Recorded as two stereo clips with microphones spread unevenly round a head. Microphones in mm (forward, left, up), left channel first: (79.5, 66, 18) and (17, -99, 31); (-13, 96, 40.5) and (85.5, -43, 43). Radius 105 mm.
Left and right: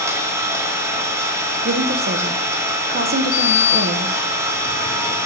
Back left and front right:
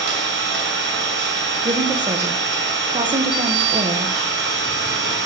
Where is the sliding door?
30° left, 0.8 m.